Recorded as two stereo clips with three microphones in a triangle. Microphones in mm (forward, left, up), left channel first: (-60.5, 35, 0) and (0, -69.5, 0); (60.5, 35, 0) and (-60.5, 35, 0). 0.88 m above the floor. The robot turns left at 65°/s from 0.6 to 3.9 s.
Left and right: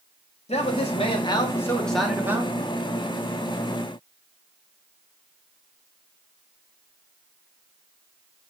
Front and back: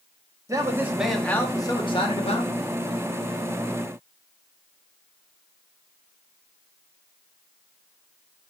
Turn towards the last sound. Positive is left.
turn(degrees=-95)